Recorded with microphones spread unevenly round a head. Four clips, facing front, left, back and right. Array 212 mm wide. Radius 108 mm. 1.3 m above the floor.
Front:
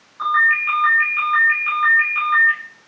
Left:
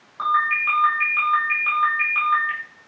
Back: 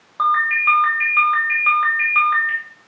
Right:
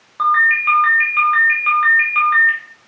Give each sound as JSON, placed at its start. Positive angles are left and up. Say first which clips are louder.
{"t": 0.2, "sound": "a ringtone", "louder": "right 6 dB, back 1 dB", "azimuth_deg": -145, "distance_m": 2.5}